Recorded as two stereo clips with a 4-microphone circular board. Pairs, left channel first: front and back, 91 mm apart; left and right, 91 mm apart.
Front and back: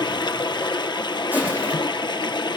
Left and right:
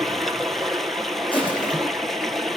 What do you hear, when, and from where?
0.0 s running water: 5° left, 0.7 m
1.3 s crushing: 110° left, 5 m